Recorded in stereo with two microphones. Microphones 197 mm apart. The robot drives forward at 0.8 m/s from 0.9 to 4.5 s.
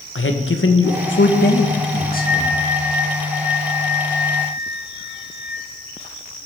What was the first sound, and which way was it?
A man speaking, 70° left (ahead or behind).